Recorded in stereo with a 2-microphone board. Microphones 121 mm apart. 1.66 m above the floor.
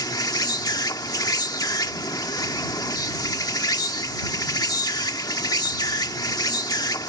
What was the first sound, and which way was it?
An insect, 35° left (ahead or behind).